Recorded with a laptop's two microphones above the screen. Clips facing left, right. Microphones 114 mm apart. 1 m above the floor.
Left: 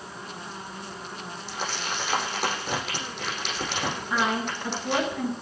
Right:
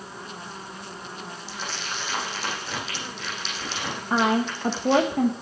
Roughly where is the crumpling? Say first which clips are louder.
Left 4 dB; left.